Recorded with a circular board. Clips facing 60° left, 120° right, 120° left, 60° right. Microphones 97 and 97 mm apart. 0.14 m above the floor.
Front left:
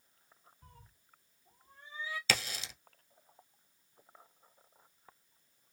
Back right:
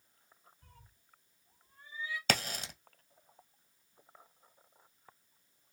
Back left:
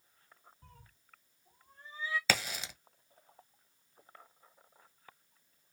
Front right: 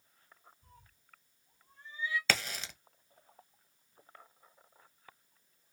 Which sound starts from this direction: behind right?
A crack, at 2.3 s.